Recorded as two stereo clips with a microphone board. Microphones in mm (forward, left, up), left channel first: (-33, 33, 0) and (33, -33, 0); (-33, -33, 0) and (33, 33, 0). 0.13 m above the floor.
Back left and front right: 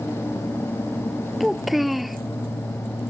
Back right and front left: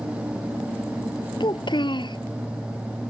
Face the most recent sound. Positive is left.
turn(degrees=-130)